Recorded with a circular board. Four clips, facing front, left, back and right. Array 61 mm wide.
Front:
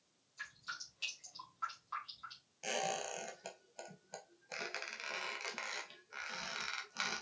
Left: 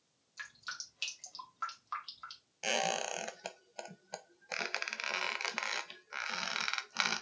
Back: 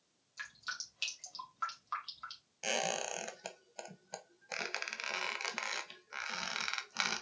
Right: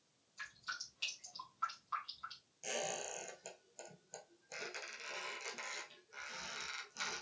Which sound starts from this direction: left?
A squeak, at 2.6 s.